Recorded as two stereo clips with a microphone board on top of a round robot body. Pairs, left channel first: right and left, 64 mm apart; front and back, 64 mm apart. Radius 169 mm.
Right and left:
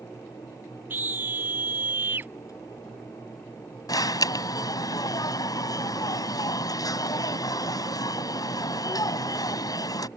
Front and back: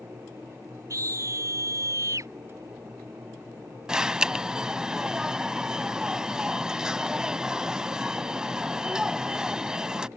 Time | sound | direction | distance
0.9 | a scream | 145° left | ?
3.9 | an alarm | 100° right | ?